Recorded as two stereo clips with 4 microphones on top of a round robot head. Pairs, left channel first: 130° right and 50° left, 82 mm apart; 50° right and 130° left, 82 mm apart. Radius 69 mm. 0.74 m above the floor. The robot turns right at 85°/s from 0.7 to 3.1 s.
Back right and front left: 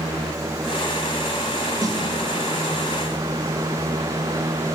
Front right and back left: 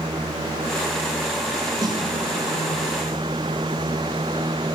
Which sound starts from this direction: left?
A snare drum, at 1.8 s.